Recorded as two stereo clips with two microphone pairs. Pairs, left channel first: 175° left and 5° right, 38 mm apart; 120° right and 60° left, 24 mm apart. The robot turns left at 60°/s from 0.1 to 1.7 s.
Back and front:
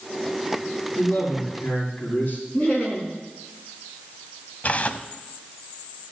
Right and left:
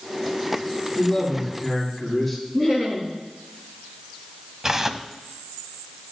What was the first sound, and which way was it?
A man speaking, straight behind.